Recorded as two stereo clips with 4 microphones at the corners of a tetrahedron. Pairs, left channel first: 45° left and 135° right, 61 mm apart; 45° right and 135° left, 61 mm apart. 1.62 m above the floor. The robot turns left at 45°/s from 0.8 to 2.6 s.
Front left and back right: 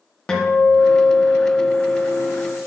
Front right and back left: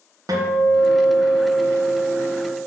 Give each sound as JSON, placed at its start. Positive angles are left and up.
{"t": 0.3, "sound": "a guitar", "azimuth_deg": 125, "distance_m": 1.4}